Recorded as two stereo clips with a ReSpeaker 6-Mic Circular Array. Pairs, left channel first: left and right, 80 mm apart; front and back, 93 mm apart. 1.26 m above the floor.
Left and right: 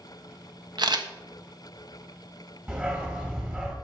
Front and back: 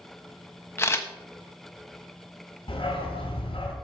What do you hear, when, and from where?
0.8 s a camera shutter: 65° right, 1.1 m
2.7 s a dog barking: 20° right, 3 m